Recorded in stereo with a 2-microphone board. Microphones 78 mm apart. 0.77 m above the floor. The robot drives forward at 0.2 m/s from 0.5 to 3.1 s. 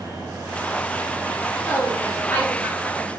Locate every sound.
1.6 s a woman speaking: 25° left (ahead or behind), 1.0 m; by 3.1 s 20° left (ahead or behind), 1.2 m